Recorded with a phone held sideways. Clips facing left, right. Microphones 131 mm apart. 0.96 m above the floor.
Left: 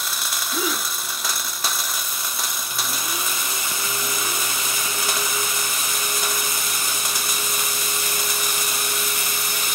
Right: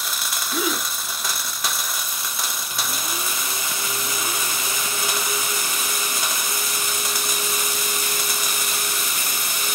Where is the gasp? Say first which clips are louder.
Right 2 dB; 10° right (ahead or behind), 5 m.